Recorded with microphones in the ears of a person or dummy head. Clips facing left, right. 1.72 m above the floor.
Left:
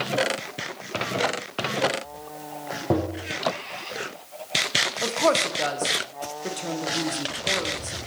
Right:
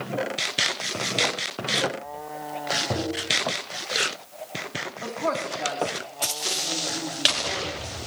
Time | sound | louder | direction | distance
2.9 | tapping | left 6 dB | 55° left (ahead or behind) | 0.9 m
5.0 | a woman speaking | left 6 dB | 40° left (ahead or behind) | 0.9 m